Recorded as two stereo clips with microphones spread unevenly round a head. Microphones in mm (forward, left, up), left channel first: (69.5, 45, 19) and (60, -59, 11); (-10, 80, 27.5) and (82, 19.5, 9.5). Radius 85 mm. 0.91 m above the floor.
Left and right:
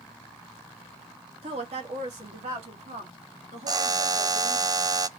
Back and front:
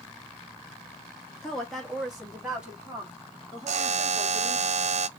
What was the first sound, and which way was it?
A woman speaking, 125° right.